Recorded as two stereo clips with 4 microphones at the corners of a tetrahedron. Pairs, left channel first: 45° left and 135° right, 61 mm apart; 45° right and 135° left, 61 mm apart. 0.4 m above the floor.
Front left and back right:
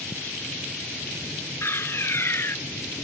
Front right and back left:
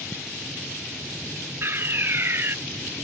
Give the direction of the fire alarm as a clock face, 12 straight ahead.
9 o'clock.